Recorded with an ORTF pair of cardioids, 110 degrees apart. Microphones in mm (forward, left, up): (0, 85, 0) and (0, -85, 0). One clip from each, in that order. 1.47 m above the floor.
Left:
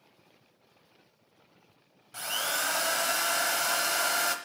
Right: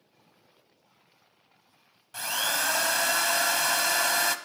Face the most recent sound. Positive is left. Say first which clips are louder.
# right 3 dB
turn(degrees=-10)